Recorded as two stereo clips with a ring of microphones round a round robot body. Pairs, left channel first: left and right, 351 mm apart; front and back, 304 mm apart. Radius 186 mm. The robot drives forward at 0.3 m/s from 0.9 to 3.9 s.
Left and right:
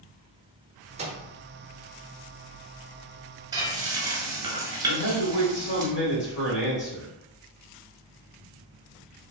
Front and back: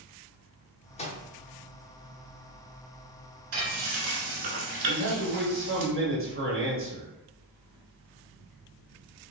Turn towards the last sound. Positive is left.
turn(degrees=140)